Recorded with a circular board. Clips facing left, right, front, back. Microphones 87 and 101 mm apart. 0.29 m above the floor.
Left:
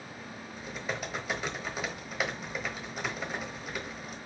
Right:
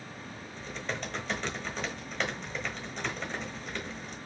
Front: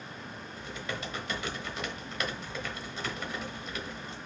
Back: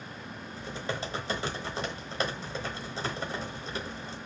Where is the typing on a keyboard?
165° left, 1.1 m.